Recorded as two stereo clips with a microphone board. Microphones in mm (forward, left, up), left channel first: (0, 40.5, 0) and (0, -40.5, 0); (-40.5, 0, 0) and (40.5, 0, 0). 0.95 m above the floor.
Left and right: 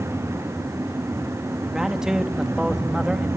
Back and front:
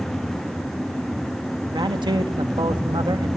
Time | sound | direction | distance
1.6 | a man speaking | 10° right | 1.6 m